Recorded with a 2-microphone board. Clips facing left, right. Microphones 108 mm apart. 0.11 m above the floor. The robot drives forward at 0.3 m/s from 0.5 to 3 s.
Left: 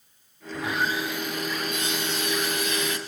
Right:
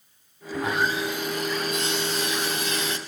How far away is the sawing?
About 3.5 m.